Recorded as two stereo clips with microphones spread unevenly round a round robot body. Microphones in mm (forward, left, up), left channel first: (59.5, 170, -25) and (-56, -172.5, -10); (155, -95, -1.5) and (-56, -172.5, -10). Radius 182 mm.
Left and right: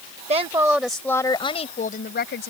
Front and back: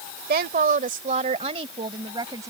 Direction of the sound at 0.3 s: 175° right.